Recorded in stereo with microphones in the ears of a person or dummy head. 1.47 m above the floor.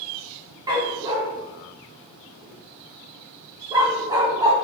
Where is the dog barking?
20° right (ahead or behind), 1.5 m.